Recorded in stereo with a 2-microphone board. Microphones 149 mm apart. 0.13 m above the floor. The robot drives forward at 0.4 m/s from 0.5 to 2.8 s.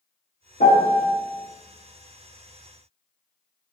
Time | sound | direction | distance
0.6 | a piano | 55° left (ahead or behind) | 0.8 m